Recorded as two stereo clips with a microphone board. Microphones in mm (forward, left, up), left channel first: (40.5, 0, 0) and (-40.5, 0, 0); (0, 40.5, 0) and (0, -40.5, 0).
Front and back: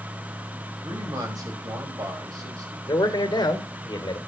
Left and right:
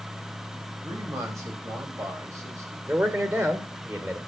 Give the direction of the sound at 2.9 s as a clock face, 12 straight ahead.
1 o'clock.